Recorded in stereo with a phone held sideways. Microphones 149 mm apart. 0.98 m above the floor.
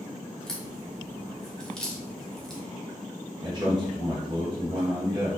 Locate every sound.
0.5 s a crack: 5° left (ahead or behind), 0.9 m
3.4 s a man speaking: 30° right (ahead or behind), 0.9 m